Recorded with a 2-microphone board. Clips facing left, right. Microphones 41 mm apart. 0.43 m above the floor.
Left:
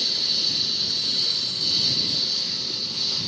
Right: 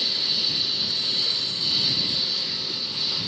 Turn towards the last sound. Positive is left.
turn(degrees=-15)  # may be behind; listen again after turning